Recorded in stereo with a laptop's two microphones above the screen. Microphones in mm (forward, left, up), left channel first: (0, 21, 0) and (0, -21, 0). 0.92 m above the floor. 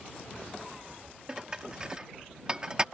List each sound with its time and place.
1.3 s dishes clattering: 25° right (ahead or behind)